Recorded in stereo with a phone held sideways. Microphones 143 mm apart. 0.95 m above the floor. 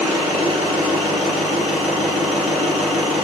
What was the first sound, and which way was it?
An engine running, 5° right (ahead or behind).